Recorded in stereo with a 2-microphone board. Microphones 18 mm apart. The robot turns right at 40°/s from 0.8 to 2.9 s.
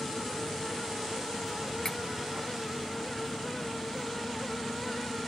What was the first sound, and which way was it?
Cutlery clinking, 25° left (ahead or behind).